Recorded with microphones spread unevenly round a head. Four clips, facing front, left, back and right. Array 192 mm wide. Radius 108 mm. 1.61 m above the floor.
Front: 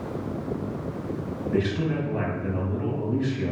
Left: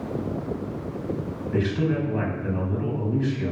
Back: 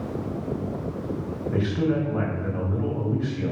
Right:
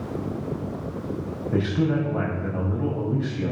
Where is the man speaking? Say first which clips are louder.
Right 1 dB, back 1 dB; 85° right, 8 m.